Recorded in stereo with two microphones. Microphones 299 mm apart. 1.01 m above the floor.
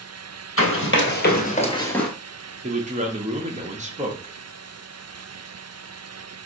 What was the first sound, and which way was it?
Running footsteps, 50° left (ahead or behind).